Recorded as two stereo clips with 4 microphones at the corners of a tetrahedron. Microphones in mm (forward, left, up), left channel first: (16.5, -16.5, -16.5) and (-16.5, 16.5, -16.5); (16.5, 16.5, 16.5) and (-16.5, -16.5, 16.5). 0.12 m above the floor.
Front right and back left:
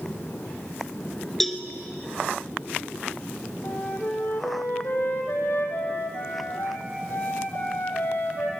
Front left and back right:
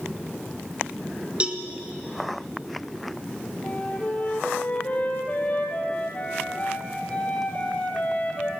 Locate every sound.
1.4 s a cowbell: 125° right, 1.4 m
3.6 s a flute: 15° right, 2.5 m